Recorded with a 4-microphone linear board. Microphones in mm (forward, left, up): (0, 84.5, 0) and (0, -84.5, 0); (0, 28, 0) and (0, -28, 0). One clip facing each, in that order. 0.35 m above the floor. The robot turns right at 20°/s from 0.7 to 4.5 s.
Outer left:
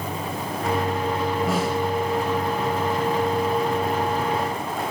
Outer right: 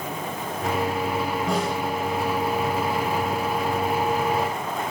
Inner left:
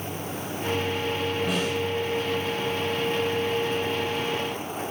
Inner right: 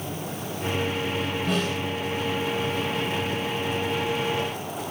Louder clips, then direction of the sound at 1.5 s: Outer left 1 dB, even; 5° left (ahead or behind).